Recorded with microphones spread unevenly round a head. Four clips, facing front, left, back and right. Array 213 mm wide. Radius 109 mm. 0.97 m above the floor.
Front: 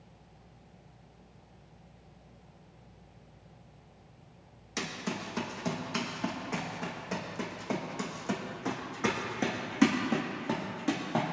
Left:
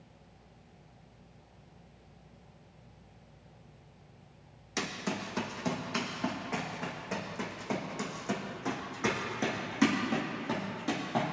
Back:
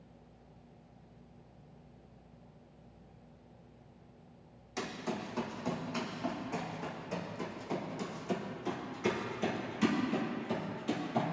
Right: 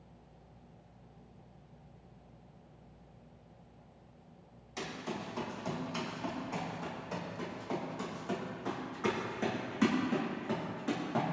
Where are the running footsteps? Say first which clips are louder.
Left 4 dB, front 1 dB; 60° left, 3 m; by 11.2 s 5° left, 4.5 m.